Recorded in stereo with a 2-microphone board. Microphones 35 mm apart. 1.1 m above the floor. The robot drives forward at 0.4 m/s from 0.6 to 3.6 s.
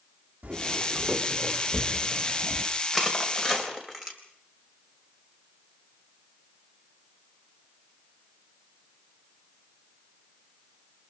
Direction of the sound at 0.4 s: 55° right (ahead or behind).